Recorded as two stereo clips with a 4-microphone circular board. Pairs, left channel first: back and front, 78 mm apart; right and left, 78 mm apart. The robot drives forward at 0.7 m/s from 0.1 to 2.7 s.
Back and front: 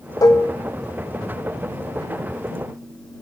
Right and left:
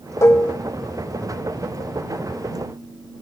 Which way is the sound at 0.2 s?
140° right.